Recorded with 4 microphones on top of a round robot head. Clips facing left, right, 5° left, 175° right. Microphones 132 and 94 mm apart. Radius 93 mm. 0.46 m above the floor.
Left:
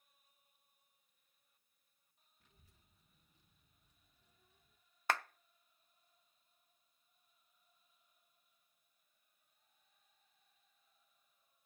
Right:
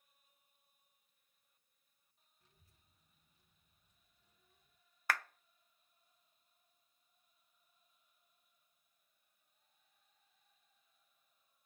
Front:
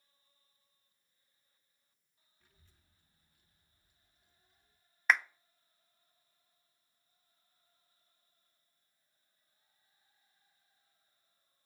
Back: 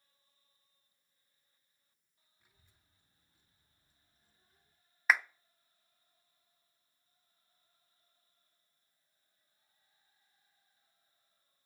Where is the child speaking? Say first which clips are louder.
Left 2 dB, front 1 dB; 105° left, 3 m; by 4.8 s 140° left, 3.5 m.